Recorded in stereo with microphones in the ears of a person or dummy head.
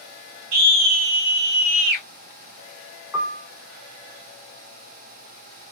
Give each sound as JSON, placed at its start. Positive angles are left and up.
{"t": 0.5, "sound": "a scream", "side_deg": -50, "distance_m": 1.0}
{"t": 3.1, "sound": "a piano", "side_deg": -5, "distance_m": 0.7}